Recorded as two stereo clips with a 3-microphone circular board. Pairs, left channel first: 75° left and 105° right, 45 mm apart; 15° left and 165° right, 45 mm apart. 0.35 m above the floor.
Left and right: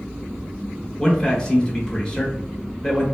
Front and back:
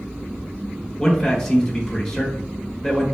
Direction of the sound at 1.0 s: 70° left.